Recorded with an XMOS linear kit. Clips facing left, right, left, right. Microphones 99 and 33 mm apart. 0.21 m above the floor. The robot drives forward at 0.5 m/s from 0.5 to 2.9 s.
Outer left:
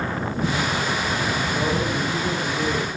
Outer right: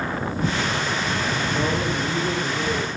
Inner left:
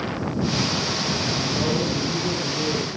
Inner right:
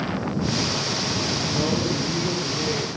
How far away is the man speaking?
About 8 m.